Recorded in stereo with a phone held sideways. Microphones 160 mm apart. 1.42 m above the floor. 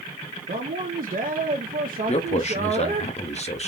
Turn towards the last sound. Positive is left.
turn(degrees=45)  # may be behind; listen again after turning